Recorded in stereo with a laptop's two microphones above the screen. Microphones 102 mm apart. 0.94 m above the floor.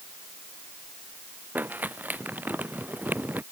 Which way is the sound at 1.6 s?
20° right (ahead or behind).